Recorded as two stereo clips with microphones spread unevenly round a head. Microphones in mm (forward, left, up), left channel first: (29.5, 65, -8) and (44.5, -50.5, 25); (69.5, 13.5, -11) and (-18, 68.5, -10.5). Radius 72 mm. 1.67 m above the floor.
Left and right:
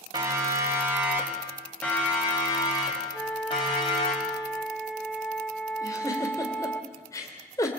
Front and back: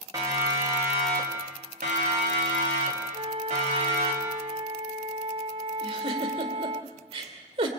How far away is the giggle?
About 2.5 m.